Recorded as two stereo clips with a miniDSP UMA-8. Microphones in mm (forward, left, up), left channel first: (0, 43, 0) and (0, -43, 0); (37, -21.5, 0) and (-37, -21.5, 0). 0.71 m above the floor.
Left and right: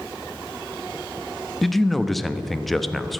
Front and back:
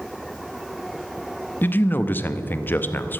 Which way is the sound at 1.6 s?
Straight ahead.